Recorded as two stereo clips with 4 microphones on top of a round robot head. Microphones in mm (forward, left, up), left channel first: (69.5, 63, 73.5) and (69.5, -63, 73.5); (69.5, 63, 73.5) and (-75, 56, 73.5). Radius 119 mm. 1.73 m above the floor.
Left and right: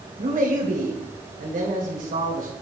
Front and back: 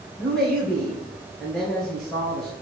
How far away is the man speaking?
About 1.7 m.